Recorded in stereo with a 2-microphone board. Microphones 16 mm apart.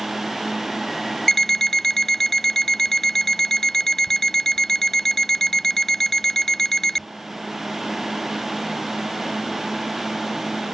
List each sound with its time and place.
1.3 s an alarm clock: 25° left (ahead or behind)